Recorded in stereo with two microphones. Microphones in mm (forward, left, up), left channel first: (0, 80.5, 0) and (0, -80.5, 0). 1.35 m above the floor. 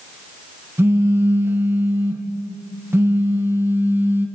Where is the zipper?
I don't hear a zipper.